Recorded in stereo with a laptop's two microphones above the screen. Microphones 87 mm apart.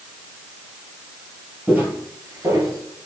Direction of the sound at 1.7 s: 15° right (ahead or behind).